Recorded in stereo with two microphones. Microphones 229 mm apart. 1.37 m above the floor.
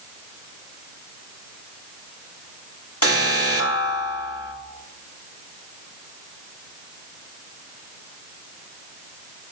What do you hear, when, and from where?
3.0 s an alarm: 85° left, 3 m